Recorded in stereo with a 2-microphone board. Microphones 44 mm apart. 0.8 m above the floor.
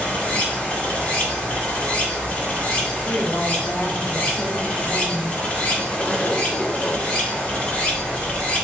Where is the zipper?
25° left (ahead or behind), 0.5 m.